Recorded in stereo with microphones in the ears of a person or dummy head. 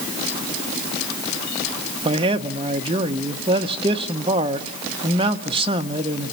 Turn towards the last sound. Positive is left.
turn(degrees=-30)  # may be behind; listen again after turning